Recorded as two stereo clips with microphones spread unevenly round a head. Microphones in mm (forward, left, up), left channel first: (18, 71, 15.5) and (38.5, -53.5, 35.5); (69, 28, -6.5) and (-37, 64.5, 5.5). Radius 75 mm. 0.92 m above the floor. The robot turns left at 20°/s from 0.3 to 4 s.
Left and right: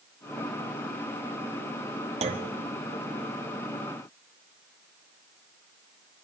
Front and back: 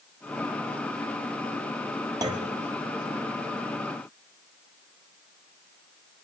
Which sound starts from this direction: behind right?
A clunk, at 2.2 s.